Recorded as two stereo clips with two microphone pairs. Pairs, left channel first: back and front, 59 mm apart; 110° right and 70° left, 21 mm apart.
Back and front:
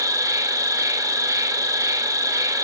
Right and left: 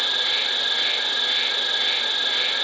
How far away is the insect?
About 0.9 m.